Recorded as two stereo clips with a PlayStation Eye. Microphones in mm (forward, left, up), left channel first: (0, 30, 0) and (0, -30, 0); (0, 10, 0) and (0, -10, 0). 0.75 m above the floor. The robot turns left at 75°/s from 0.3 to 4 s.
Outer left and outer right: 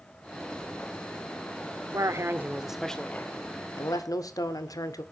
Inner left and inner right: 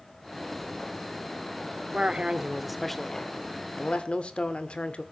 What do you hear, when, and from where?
1.9 s a man speaking: 115° right, 1.8 m; by 5.0 s 90° left, 1.8 m